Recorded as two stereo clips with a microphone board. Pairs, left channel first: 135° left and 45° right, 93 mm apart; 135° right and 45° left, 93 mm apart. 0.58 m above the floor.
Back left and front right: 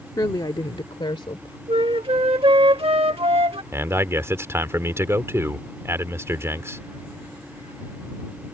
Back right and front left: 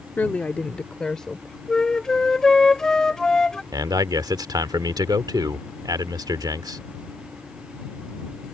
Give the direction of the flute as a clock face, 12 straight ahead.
2 o'clock.